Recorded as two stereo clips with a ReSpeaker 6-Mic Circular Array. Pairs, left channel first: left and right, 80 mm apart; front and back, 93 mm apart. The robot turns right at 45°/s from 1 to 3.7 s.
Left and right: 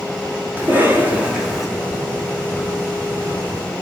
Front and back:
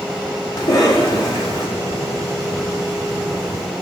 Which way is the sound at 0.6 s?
30° right.